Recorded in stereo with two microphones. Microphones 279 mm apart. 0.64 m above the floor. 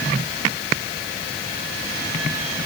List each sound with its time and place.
Only background noise.